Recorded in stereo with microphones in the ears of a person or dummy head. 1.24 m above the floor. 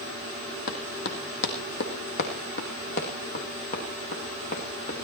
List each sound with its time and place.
0.7 s running footsteps: 55° left (ahead or behind), 2 m; by 5.0 s 40° left (ahead or behind), 3.5 m